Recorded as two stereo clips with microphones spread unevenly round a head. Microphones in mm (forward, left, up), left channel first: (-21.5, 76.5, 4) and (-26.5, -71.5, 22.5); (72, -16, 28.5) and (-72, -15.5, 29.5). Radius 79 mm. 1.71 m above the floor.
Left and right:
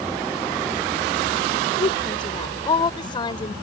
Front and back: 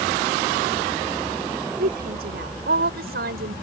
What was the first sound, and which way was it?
A woman speaking, 145° left.